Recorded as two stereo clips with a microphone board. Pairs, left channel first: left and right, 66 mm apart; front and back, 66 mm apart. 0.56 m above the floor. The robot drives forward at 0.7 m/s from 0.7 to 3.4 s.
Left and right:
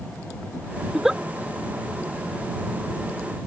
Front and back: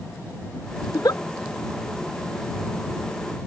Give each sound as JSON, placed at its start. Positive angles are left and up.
{"t": 0.9, "sound": "a giggle", "azimuth_deg": -5}